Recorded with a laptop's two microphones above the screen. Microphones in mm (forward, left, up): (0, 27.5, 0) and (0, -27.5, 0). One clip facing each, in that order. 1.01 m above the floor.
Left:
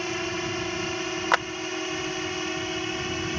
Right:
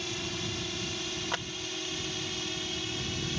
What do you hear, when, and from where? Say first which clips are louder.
0.0 s a drone: left 7 dB; 45° left (ahead or behind)
1.3 s a clap: left 14 dB; 80° left